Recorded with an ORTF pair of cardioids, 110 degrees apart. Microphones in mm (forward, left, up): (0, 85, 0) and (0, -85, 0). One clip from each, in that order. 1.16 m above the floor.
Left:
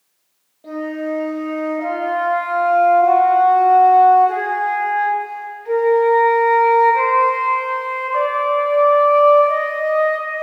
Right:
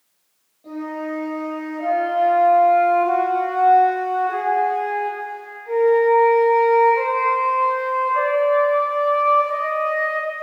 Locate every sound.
0.6 s a flute: 45° left, 2.0 m